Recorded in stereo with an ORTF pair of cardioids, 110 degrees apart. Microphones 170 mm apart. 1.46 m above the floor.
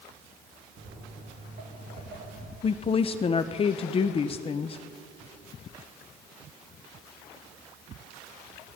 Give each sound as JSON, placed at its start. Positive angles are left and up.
{"t": 0.8, "sound": "footsteps", "azimuth_deg": -65, "distance_m": 6.5}
{"t": 2.6, "sound": "a woman speaking", "azimuth_deg": 35, "distance_m": 0.8}